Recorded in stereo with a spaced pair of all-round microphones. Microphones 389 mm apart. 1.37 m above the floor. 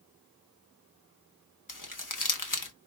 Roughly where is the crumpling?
Left.